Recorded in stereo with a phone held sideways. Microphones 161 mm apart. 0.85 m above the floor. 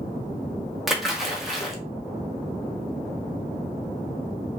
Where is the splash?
Centre (ahead or behind), 0.9 m.